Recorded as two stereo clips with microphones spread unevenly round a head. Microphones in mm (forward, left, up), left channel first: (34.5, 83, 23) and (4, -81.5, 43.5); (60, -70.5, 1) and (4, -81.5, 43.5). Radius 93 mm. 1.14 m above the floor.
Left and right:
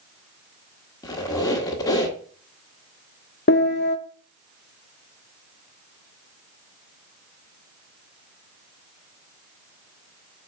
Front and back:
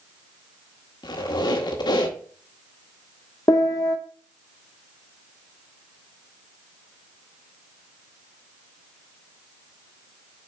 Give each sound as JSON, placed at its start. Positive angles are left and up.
{"t": 1.0, "sound": "a squeak", "azimuth_deg": 10, "distance_m": 1.4}
{"t": 3.5, "sound": "a piano", "azimuth_deg": 55, "distance_m": 0.5}